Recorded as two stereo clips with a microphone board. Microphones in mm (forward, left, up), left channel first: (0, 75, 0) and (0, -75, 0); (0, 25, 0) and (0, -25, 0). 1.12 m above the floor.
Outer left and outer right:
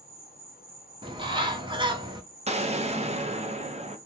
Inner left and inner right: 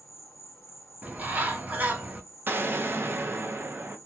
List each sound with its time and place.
0.0 s an insect: 75° left (ahead or behind), 1.0 m
1.0 s a bird: 30° right (ahead or behind), 0.7 m
2.5 s an explosion: 45° right (ahead or behind), 0.6 m